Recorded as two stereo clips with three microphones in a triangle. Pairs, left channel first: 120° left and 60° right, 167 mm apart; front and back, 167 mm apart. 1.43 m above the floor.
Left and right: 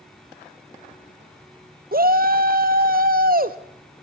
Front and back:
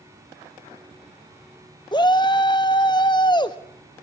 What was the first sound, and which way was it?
A shout, 60° right.